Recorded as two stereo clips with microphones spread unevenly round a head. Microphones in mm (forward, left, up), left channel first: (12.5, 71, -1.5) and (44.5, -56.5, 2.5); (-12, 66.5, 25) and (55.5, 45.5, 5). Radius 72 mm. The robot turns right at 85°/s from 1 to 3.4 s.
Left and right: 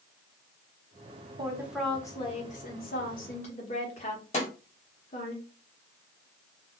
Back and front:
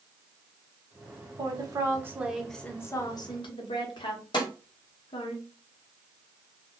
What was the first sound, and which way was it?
A woman speaking, 20° right.